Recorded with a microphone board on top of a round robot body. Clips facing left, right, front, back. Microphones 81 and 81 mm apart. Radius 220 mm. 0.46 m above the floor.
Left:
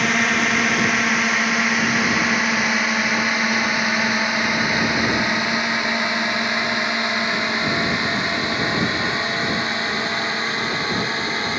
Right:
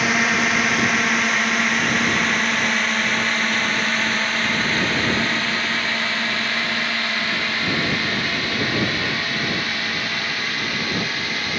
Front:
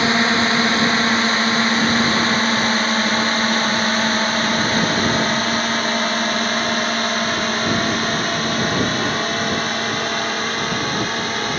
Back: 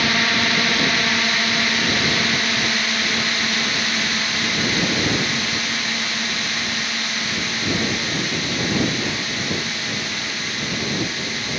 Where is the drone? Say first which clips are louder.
Even, front 4 dB; 5° right; by 11.6 s 30° left.